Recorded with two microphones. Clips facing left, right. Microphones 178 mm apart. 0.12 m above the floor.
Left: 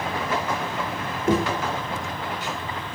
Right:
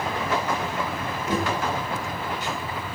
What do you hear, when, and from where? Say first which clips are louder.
1.3 s knocking: left 5 dB; 55° left (ahead or behind), 2.5 m